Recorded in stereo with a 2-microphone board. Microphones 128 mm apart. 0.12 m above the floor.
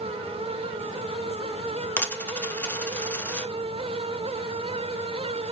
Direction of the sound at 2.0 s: 15° left (ahead or behind).